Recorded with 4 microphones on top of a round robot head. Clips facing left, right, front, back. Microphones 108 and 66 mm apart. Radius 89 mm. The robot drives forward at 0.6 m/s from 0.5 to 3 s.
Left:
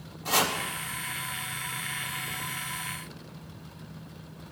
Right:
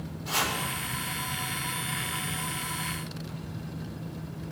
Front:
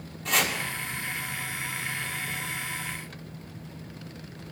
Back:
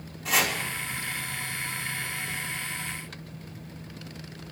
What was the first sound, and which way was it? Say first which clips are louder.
Chopping: left 4 dB, back 1 dB; 95° left.